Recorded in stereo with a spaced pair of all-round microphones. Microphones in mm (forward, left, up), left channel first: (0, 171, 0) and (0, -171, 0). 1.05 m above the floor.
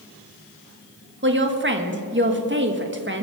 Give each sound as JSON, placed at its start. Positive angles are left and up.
{"t": 1.2, "sound": "a woman speaking", "side_deg": -30, "distance_m": 1.3}